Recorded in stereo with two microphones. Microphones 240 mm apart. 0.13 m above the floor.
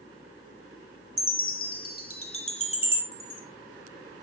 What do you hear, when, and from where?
1.2 s a chime: 65° left (ahead or behind), 1.3 m
3.1 s a chime: 60° right (ahead or behind), 2.5 m